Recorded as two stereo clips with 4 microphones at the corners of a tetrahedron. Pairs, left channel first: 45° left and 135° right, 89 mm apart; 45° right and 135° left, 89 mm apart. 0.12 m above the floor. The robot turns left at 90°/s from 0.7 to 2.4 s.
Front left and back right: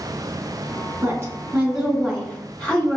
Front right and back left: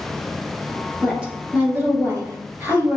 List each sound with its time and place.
1.0 s a woman speaking: 135° right, 1.9 m; by 3.0 s 100° left, 1.9 m